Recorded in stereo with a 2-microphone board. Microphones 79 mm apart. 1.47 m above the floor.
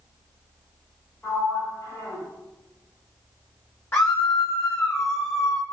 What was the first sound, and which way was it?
A sliding door, 25° left (ahead or behind).